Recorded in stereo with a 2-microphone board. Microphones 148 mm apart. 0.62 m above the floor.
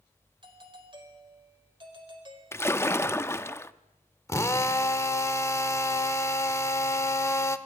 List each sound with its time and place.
0.4 s a doorbell: 35° right (ahead or behind), 3.5 m
2.5 s a splash: 15° left (ahead or behind), 0.7 m
4.3 s a drill: 20° left (ahead or behind), 1.2 m